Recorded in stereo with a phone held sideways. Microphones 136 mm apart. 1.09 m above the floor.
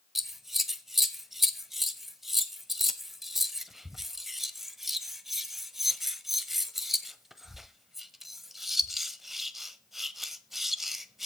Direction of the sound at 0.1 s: Centre (ahead or behind).